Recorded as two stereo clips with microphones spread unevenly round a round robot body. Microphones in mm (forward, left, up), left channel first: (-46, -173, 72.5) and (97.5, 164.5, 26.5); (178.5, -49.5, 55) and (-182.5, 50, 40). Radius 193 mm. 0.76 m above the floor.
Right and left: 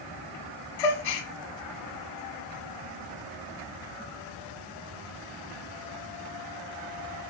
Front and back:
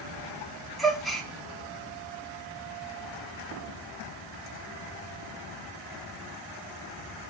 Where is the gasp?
105° right, 1.2 m.